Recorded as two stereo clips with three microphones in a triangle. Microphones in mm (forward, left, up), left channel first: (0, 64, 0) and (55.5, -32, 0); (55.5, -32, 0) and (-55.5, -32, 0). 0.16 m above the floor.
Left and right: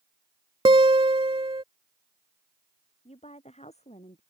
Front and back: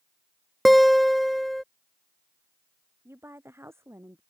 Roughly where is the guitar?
Right.